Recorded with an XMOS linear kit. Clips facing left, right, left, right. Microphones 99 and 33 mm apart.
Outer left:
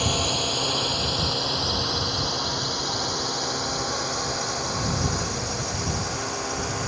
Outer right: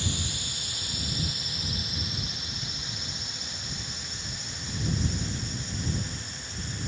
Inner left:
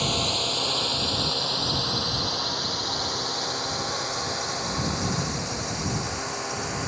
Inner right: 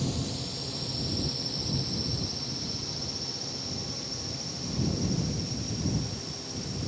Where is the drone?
65° left (ahead or behind); by 6.9 s 70° left (ahead or behind).